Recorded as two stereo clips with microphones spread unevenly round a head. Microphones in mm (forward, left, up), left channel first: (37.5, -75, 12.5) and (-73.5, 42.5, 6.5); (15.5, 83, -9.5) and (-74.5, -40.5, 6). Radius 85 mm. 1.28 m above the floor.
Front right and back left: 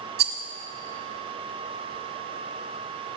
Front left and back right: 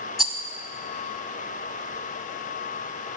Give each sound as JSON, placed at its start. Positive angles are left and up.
{"t": 0.2, "sound": "a rattle", "azimuth_deg": 145, "distance_m": 1.5}